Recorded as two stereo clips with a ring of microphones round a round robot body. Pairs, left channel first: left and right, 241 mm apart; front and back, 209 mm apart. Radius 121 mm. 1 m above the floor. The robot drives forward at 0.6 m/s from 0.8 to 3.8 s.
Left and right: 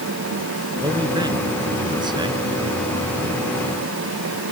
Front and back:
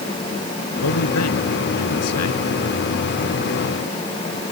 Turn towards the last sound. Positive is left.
turn(degrees=-20)